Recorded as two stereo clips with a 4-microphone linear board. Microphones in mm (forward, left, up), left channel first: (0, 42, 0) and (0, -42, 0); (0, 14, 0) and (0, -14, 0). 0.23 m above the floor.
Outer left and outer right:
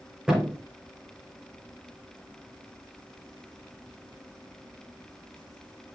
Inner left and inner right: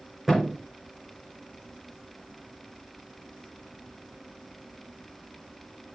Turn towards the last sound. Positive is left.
turn(degrees=-10)  # may be behind; listen again after turning